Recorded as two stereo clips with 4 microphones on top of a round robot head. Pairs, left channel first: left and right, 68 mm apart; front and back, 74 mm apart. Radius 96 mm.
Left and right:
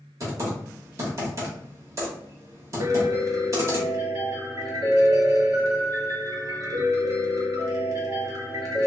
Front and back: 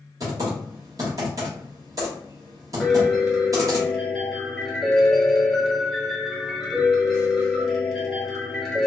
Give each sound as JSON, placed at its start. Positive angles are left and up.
{"t": 0.2, "sound": "typing on a keyboard", "azimuth_deg": -130, "distance_m": 1.0}
{"t": 2.8, "sound": "a piano", "azimuth_deg": -95, "distance_m": 1.1}